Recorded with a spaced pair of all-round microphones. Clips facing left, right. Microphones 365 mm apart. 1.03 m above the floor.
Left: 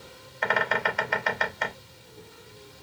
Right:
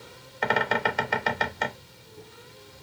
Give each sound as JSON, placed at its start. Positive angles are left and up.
{"t": 0.4, "sound": "a bird", "side_deg": -50, "distance_m": 0.6}